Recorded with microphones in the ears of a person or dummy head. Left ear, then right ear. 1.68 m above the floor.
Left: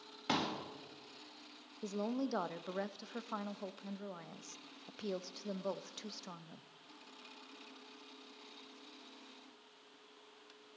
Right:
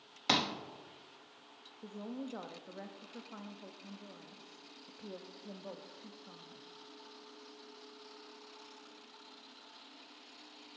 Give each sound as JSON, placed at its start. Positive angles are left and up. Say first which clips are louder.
{"t": 0.3, "sound": "a pop", "louder": "right 5 dB", "side_deg": -30, "distance_m": 1.0}
{"t": 1.8, "sound": "a woman speaking", "louder": "left 6 dB", "side_deg": 80, "distance_m": 0.6}